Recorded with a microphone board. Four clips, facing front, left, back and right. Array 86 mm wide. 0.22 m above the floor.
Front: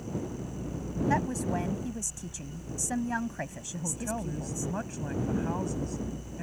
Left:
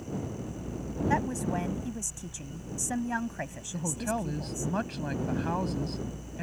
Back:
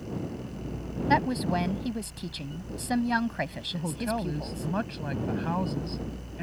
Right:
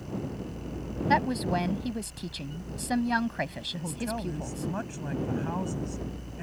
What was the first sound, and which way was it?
A woman speaking, 140° right.